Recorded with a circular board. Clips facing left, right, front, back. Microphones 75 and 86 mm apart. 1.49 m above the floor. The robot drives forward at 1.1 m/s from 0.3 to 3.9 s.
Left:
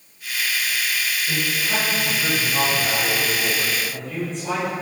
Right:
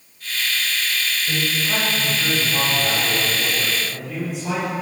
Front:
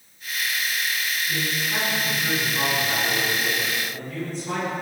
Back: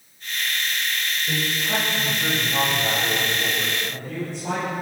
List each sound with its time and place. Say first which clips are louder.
1.3 s a man speaking: right 1 dB, back 4 dB; 170° right, 9.5 m